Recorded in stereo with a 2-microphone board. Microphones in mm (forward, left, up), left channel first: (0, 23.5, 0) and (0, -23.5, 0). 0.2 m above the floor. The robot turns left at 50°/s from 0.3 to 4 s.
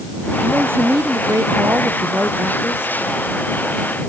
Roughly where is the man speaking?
Ahead right.